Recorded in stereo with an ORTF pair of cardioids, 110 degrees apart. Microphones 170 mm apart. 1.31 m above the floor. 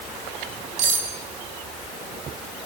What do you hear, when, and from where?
0.8 s cutlery clinking: 70° right, 4.5 m